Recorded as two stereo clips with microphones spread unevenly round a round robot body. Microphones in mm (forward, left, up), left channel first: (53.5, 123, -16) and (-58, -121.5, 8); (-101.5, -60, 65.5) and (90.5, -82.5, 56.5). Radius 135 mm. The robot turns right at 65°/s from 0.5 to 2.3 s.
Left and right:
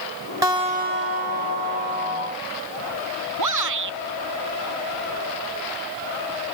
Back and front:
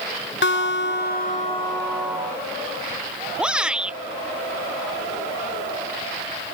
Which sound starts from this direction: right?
A shout, at 3.4 s.